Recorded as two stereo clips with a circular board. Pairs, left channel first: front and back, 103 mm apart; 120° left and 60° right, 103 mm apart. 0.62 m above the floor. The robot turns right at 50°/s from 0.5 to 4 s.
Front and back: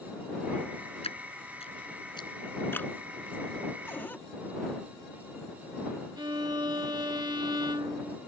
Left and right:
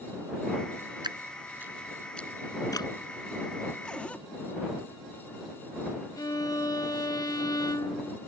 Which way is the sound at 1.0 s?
15° right.